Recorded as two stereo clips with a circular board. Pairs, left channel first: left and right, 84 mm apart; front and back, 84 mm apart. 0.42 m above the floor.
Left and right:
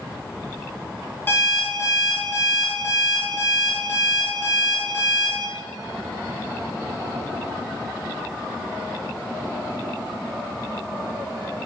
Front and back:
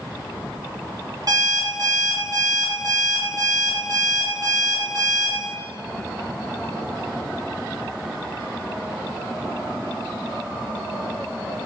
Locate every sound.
1.3 s an alarm clock: 145° left, 1.4 m